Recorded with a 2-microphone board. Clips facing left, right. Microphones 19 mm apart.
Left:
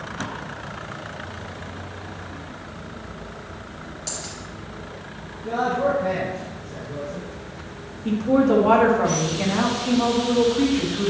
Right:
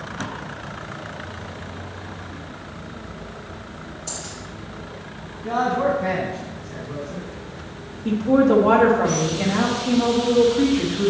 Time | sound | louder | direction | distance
4.1 | a dropped coin | left 1 dB | 65° left (ahead or behind) | 3.5 m
5.4 | a man speaking | right 1 dB | 50° right (ahead or behind) | 1.4 m
8.1 | a woman speaking | right 2 dB | 5° left (ahead or behind) | 1.3 m